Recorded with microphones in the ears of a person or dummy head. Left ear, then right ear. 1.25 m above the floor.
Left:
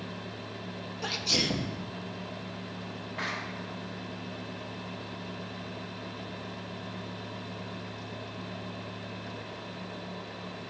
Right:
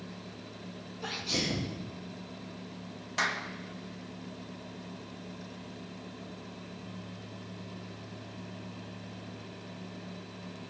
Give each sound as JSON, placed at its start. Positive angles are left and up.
{"t": 1.0, "sound": "a sneeze", "side_deg": 20, "distance_m": 1.7}
{"t": 3.2, "sound": "a clap", "side_deg": -75, "distance_m": 1.9}